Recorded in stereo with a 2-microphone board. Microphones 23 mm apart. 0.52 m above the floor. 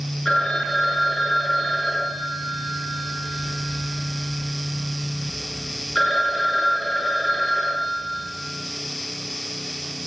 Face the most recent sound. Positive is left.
turn(degrees=25)  # may be behind; listen again after turning